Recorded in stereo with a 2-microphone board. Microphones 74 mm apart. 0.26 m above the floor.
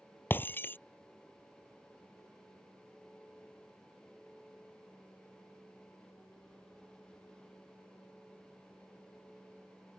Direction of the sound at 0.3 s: 30° left (ahead or behind).